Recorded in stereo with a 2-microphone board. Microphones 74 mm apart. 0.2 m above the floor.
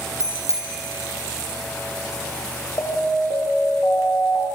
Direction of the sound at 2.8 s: 50° left (ahead or behind).